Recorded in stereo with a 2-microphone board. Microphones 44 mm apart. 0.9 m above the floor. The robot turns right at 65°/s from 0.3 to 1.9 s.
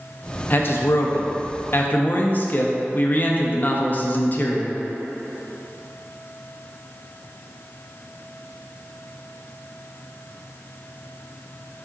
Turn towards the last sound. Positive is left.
turn(degrees=135)